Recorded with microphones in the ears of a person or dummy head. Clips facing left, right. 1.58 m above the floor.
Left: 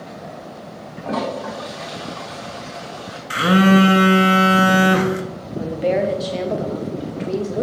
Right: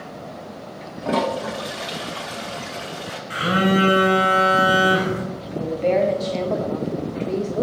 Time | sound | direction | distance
1.0 | a toilet flushing | 30° right (ahead or behind) | 1.0 m
3.3 | a phone buzzing | 75° left (ahead or behind) | 1.1 m
5.6 | a woman speaking | 10° left (ahead or behind) | 0.5 m